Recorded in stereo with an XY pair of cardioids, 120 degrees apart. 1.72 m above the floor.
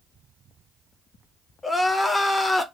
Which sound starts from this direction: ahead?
Crying, at 1.6 s.